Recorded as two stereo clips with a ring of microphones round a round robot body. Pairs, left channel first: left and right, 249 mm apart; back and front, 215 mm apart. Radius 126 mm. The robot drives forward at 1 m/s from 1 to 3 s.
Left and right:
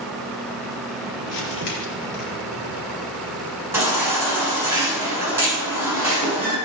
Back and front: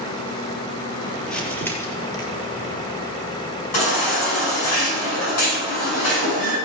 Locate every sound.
1.3 s crumpling: 95° left, 3.5 m; by 2.2 s 110° left, 4 m
3.7 s a baby crying: 170° right, 8 m